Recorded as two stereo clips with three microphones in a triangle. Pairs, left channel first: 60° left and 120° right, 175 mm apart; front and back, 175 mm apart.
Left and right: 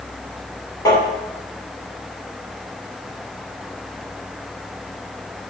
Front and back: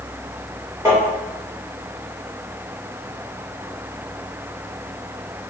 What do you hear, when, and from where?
0.8 s tapping: 115° left, 1.7 m